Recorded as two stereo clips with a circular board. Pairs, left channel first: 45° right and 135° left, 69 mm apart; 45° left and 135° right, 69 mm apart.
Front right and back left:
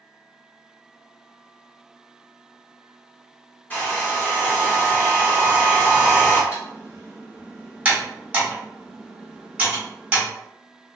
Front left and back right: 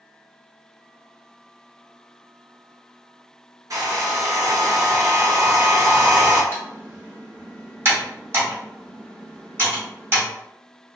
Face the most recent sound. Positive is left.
turn(degrees=-160)